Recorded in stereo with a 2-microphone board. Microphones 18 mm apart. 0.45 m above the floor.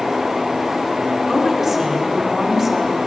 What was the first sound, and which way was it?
A woman speaking, 5° right (ahead or behind).